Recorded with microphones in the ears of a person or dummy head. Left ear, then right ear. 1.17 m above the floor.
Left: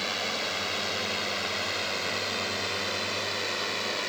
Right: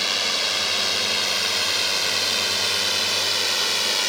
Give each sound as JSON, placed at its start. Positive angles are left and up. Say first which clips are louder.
{"t": 0.0, "sound": "a drone", "louder": "right 8 dB", "side_deg": -35}